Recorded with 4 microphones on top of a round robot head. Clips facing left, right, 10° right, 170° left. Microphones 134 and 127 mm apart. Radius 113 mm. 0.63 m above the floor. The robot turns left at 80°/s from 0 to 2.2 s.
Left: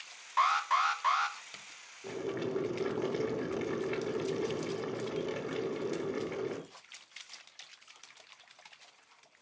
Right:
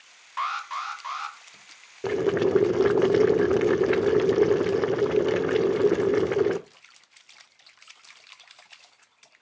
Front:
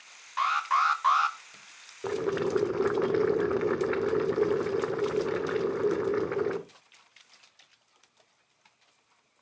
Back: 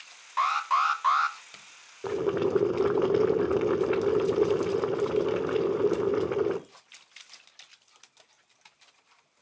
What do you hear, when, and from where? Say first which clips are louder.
0.4 s an alarm: left 3 dB, back 1 dB; 135° left, 2 m; by 1.4 s 55° left, 2 m
2.0 s boiling: right 13 dB, back 2 dB; 100° right, 1.0 m; by 6.6 s 110° right, 1.0 m